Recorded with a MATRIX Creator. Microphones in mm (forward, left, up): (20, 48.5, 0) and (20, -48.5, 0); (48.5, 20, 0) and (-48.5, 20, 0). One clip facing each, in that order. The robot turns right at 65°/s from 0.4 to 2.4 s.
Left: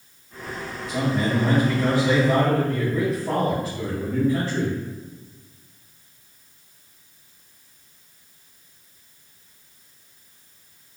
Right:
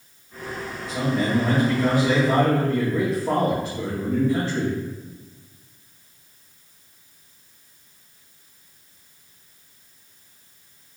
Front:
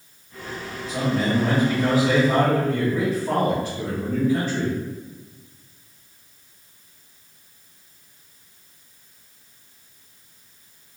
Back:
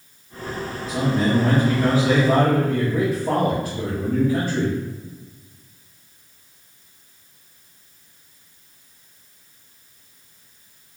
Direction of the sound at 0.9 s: 105° left.